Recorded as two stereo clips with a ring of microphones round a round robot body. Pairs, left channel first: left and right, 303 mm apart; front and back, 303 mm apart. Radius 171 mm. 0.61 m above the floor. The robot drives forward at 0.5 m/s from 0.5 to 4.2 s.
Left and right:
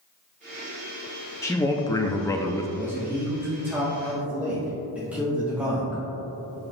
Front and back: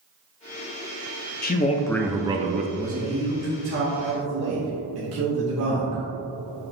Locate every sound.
1.4 s a man speaking: 15° left, 0.7 m; by 2.7 s 160° left, 0.7 m
2.8 s a man speaking: 160° right, 0.9 m; by 6.0 s 175° right, 1.4 m